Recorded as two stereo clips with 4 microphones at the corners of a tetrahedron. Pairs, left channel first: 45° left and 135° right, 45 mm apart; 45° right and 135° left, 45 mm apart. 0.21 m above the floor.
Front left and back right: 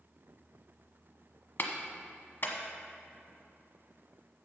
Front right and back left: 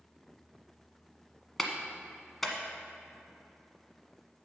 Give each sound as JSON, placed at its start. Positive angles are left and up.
{"t": 1.6, "sound": "a clap", "azimuth_deg": 35, "distance_m": 1.3}